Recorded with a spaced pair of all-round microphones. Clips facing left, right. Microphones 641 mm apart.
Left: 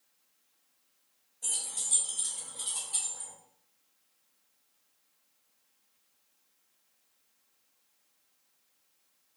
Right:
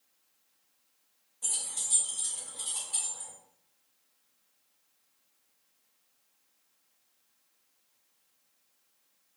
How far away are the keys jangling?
About 0.8 m.